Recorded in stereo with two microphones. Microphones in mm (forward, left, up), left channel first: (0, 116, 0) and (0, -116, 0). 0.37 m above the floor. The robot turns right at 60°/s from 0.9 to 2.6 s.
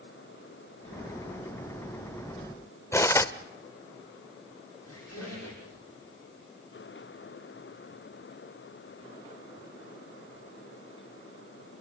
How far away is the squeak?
About 7.5 m.